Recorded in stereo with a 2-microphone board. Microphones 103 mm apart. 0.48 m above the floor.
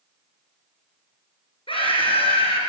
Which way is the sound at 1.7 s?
55° left (ahead or behind).